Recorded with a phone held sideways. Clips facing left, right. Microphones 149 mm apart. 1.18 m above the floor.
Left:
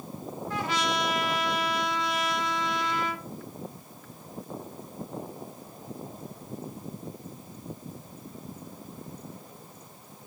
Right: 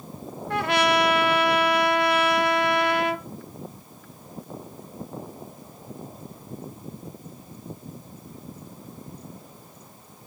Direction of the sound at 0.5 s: 65° right (ahead or behind).